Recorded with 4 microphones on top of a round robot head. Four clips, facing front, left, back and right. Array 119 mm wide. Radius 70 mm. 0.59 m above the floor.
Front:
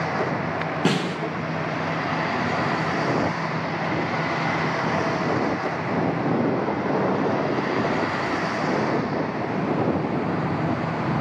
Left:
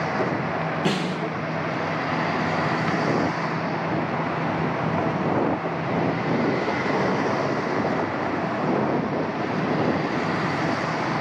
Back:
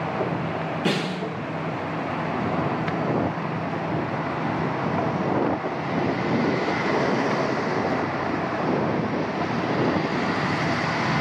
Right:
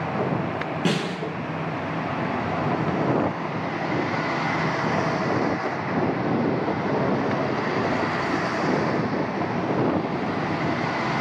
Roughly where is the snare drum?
Ahead.